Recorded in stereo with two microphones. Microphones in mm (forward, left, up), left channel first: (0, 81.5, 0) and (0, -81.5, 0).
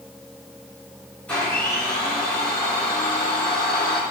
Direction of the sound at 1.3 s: 10° left (ahead or behind).